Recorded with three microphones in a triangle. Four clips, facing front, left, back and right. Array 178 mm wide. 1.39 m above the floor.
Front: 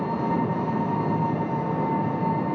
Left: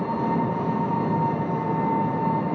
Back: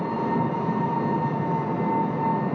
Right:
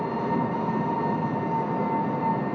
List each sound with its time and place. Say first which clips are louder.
0.0 s an engine running: left 2 dB, even; 155° left, 2.5 m